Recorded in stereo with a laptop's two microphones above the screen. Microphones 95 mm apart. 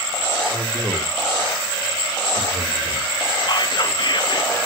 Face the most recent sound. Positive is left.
turn(degrees=50)  # may be behind; listen again after turning